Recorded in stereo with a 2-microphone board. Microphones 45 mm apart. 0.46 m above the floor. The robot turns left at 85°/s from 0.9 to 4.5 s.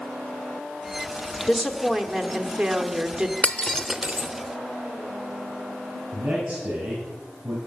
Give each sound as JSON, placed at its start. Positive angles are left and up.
{"t": 1.5, "sound": "a woman speaking", "side_deg": 5, "distance_m": 1.2}
{"t": 3.4, "sound": "breaking glass", "side_deg": 30, "distance_m": 0.8}
{"t": 6.1, "sound": "a man speaking", "side_deg": -25, "distance_m": 7.5}